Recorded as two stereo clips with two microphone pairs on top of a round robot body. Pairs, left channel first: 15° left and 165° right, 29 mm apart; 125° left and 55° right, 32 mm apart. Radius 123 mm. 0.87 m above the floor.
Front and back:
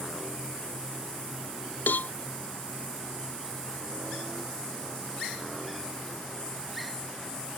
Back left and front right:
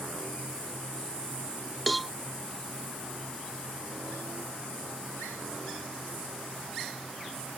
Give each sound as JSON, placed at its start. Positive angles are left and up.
{"t": 1.9, "sound": "a cowbell", "azimuth_deg": 35}